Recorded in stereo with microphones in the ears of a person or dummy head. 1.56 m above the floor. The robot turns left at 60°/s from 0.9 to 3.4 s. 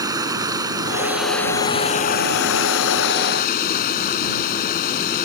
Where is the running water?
155° right; by 5.3 s 55° left.